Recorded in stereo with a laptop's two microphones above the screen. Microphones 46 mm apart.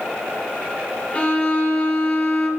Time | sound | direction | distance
1.1 | a violin | 30° left (ahead or behind) | 0.5 m